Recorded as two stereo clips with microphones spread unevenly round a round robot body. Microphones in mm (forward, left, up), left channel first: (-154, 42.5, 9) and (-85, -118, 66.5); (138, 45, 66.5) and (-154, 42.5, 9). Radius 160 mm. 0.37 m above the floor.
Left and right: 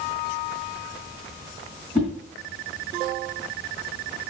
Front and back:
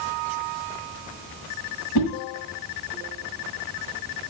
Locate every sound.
1.9 s a whoosh: 30° left, 2 m